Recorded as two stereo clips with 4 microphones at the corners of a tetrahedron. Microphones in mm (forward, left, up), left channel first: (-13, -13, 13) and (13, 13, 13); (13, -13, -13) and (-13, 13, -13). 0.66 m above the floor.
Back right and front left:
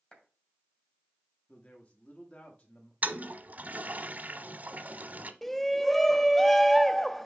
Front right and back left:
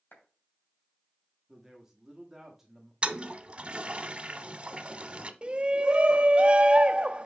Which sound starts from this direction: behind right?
A man speaking, at 1.5 s.